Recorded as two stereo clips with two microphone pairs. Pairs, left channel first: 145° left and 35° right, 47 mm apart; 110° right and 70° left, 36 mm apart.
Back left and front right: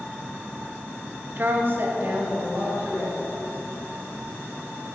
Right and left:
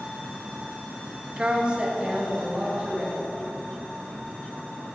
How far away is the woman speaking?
About 0.6 m.